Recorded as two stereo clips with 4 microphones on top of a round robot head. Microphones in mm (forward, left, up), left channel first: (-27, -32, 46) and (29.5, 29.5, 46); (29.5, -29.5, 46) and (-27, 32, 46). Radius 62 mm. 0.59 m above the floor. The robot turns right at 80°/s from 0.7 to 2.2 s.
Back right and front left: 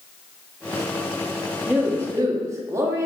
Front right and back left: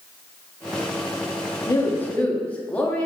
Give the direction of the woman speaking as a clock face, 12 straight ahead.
1 o'clock.